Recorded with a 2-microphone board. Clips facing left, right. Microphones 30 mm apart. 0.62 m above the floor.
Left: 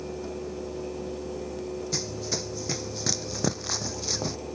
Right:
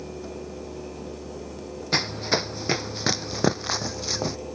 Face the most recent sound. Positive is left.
turn(degrees=-20)  # may be behind; listen again after turning